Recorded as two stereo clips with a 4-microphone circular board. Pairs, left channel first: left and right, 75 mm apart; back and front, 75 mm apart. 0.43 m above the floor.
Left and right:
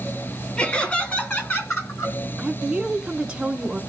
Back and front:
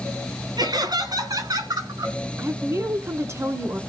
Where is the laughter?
15° left, 4.5 m; by 2.1 s 40° left, 5.5 m.